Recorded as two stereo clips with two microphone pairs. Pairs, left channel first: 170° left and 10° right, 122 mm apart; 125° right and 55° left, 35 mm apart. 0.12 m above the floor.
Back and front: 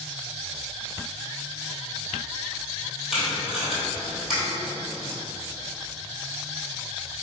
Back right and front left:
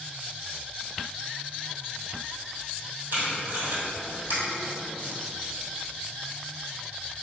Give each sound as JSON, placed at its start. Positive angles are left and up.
{"t": 3.1, "sound": "tape being pulled", "azimuth_deg": 80, "distance_m": 1.2}